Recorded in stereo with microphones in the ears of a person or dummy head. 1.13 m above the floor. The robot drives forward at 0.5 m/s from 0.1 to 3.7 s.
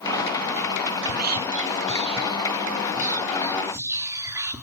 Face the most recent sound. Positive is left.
turn(degrees=-15)  # may be behind; listen again after turning